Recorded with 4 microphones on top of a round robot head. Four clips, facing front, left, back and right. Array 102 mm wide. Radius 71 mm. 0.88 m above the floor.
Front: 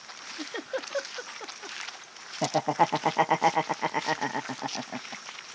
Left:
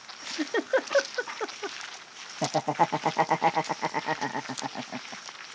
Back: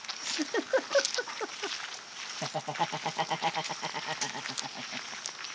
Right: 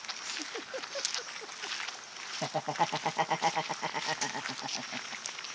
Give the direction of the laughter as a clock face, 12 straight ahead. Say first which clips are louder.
Left 6 dB, front 9 dB; 11 o'clock.